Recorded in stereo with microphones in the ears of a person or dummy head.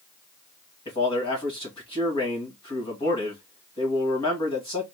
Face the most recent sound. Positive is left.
turn(degrees=30)  # may be behind; listen again after turning